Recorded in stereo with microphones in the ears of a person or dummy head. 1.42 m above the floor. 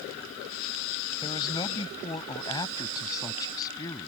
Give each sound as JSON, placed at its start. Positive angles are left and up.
{"t": 1.2, "sound": "a man speaking", "side_deg": 25}